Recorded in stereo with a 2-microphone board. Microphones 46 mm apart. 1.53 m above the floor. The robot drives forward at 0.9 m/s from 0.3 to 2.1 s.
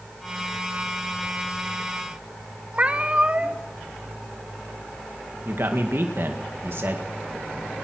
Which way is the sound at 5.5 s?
60° right (ahead or behind).